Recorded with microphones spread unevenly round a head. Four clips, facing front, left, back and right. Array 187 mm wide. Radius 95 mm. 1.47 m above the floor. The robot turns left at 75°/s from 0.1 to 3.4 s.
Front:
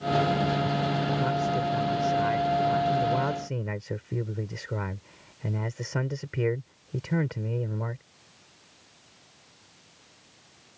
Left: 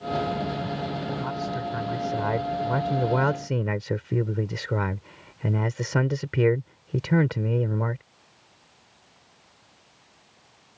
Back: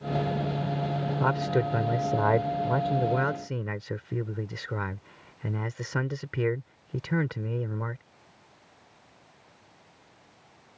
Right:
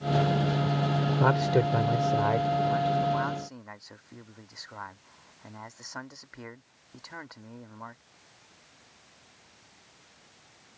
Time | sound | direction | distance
1.2 | a man speaking | 105° right | ?